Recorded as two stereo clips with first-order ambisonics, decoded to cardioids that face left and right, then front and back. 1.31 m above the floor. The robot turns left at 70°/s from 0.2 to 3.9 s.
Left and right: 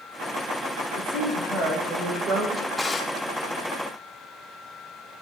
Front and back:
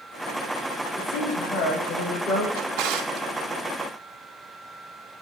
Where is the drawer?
160° right, 2.5 m; by 3.3 s 145° left, 2.5 m.